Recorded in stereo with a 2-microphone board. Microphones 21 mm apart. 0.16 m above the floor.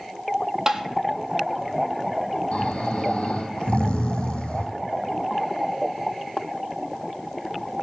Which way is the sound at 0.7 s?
20° right (ahead or behind).